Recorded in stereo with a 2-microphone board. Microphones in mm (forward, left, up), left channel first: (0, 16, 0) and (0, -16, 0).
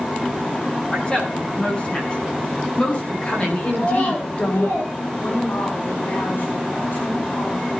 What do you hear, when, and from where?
0.9 s a woman speaking: 35° left (ahead or behind), 8.5 m; by 4.7 s 45° left (ahead or behind), 4 m
3.7 s a child speaking: 65° left (ahead or behind), 9 m
5.2 s a woman speaking: 65° left (ahead or behind), 6 m